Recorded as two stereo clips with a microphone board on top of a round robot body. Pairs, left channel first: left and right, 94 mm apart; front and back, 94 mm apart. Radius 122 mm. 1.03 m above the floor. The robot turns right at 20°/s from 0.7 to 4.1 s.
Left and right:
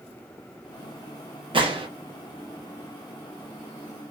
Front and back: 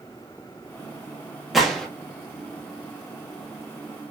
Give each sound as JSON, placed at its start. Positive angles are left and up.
{"t": 1.5, "sound": "a gunshot", "azimuth_deg": -95, "distance_m": 0.9}